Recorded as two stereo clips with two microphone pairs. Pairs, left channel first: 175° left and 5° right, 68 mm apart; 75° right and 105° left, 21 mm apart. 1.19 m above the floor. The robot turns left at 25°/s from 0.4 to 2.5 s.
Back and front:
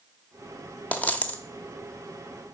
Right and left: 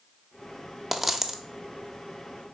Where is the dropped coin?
170° left, 0.9 m; by 1.4 s 160° left, 0.9 m.